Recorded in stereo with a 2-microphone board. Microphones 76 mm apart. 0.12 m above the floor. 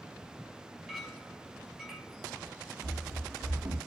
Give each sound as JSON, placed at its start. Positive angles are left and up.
{"t": 0.9, "sound": "a clink", "side_deg": -5, "distance_m": 1.5}
{"t": 2.8, "sound": "running footsteps", "side_deg": -85, "distance_m": 0.6}